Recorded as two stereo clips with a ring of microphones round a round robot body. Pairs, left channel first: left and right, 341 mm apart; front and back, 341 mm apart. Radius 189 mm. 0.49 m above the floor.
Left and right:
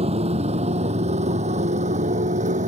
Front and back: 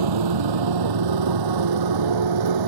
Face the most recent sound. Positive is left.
turn(degrees=-160)